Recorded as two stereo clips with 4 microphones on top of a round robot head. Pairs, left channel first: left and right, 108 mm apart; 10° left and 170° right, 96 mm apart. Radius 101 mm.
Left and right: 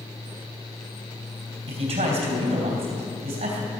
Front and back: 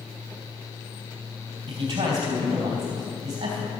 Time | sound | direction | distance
1.7 | a man speaking | 115° right | 3.5 m